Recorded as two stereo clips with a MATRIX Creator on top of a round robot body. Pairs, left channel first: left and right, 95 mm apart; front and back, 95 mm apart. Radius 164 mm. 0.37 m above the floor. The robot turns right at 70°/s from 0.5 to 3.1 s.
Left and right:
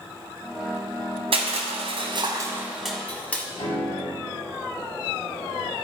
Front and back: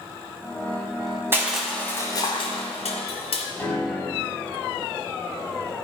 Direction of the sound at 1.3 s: 110° right.